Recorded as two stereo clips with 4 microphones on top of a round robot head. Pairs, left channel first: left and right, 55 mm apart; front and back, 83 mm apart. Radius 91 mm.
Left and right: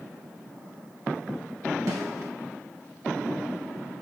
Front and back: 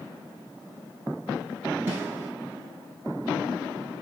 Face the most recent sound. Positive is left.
turn(degrees=-115)